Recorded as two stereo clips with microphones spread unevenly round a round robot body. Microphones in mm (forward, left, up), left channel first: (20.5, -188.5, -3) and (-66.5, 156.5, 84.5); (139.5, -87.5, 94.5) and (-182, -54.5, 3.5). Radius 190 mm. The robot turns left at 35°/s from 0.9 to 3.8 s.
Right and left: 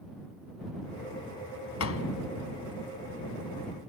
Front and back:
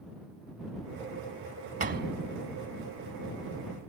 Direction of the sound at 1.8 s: 120° right.